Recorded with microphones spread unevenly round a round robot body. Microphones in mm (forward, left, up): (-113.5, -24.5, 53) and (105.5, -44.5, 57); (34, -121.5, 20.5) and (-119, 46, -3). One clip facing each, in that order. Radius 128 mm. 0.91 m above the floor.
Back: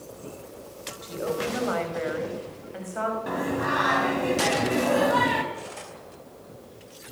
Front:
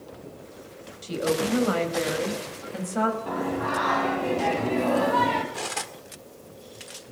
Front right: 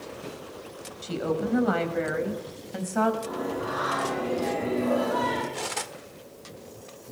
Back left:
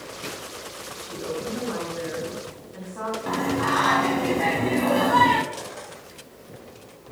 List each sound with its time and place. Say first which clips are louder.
1.0 s a woman speaking: front 4 dB, front right 3 dB; 60° right, 5 m; by 3.2 s 40° right, 5.5 m
3.3 s singing: even, back left 5 dB; 100° left, 3 m
5.5 s cutlery clinking: front 3 dB, front right 2 dB; 20° right, 1.7 m